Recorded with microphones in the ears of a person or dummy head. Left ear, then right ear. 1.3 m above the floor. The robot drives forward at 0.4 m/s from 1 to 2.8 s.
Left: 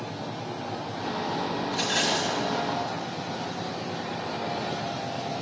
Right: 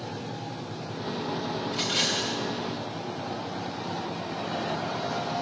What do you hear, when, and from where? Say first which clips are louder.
1.7 s a rattle: even; 10° left (ahead or behind), 1.8 m